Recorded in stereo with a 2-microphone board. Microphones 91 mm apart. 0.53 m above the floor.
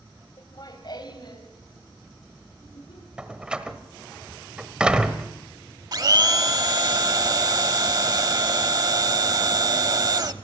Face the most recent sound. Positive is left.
turn(degrees=-50)  # may be behind; listen again after turning